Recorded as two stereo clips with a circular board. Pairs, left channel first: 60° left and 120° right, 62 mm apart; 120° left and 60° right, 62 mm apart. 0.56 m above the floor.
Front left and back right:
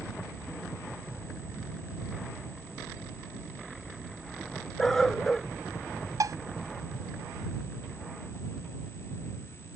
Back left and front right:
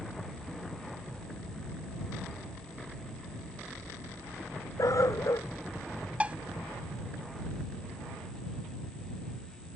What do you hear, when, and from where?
4.8 s a dog barking: 145° left
6.2 s dishes clattering: 125° right